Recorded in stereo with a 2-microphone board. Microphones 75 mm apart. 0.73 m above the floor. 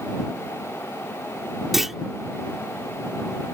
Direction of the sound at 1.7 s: 5° right (ahead or behind).